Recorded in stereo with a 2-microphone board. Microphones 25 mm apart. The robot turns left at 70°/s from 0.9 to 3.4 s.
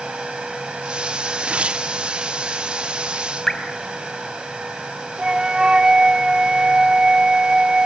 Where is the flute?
30° right (ahead or behind), 0.8 m.